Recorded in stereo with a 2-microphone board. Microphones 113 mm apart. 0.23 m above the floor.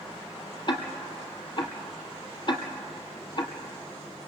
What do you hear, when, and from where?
0.7 s ticking: 45° left (ahead or behind), 2.5 m